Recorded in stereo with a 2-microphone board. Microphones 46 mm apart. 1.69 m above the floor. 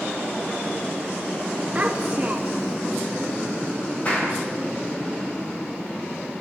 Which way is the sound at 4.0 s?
30° left (ahead or behind).